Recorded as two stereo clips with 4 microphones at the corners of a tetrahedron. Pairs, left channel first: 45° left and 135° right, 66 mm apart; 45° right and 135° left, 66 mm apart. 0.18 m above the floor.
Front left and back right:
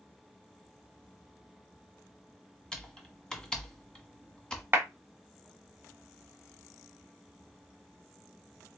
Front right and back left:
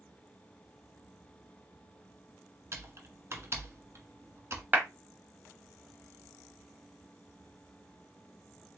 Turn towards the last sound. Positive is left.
turn(degrees=-175)